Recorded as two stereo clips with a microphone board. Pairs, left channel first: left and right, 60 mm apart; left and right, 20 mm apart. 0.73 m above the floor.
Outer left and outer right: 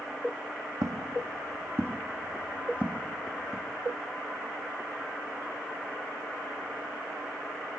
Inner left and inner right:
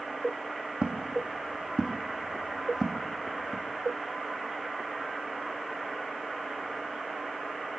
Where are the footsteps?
60° right (ahead or behind), 1.5 m; by 3.6 s 10° right (ahead or behind), 2 m.